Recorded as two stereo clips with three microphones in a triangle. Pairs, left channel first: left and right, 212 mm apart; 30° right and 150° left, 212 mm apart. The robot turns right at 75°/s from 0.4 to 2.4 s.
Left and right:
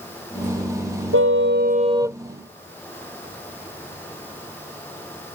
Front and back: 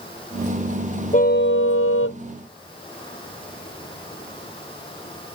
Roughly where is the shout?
I don't hear a shout.